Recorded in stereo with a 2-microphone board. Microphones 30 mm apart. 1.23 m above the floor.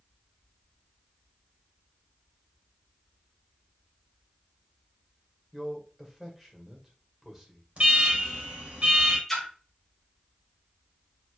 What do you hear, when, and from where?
5.5 s a man speaking: 10° right (ahead or behind), 1.9 m
7.8 s an alarm: 45° right (ahead or behind), 2.5 m
9.3 s a splash: 5° left (ahead or behind), 2.0 m